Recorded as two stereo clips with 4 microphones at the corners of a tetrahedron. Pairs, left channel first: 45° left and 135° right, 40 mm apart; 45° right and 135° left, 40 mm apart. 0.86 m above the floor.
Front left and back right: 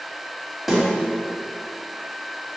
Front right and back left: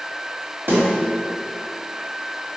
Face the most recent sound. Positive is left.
turn(degrees=140)